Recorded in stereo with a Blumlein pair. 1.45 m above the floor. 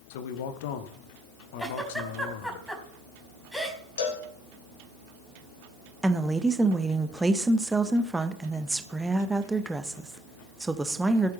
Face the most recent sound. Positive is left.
turn(degrees=-10)